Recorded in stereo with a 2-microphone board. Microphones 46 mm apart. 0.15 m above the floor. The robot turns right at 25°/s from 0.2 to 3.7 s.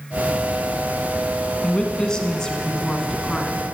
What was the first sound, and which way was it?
A woman speaking, 20° left (ahead or behind).